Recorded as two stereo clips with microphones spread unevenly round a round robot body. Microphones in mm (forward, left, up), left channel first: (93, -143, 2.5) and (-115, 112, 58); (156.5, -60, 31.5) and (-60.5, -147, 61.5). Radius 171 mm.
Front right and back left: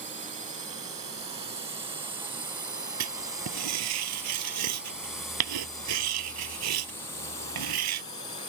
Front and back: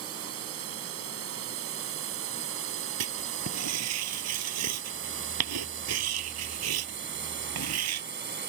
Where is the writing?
170° left.